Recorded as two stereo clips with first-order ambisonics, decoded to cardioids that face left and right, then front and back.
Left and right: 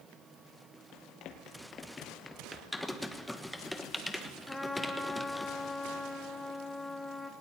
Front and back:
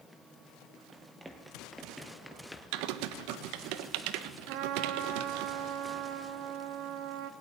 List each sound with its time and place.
0.9 s running footsteps: 105° left, 2.5 m; by 2.6 s 45° right, 1.6 m
2.7 s typing on a keyboard: 175° left, 1.3 m
4.5 s a trumpet: 175° left, 1.4 m